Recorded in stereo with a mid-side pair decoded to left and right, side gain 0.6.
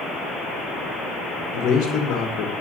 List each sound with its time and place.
1.5 s a man speaking: 55° left, 2.5 m